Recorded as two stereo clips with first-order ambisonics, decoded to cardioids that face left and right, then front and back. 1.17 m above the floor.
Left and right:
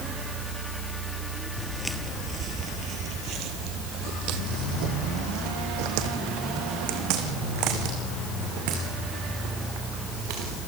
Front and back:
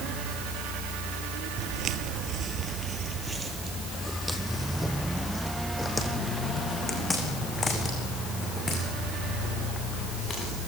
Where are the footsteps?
170° left, 1.4 m; by 10.6 s 70° right, 7 m.